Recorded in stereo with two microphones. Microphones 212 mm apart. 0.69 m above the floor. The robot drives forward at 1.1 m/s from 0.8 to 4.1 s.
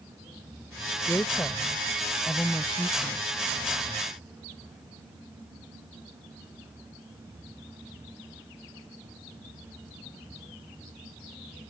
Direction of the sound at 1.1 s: 10° left (ahead or behind).